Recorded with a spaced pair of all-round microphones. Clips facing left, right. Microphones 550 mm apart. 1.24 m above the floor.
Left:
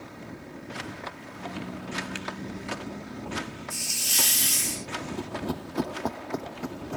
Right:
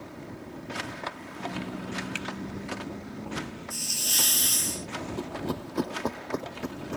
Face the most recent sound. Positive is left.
turn(degrees=5)  # may be behind; listen again after turning